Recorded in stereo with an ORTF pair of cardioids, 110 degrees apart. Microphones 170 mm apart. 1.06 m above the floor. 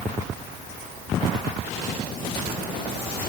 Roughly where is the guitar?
I don't hear a guitar.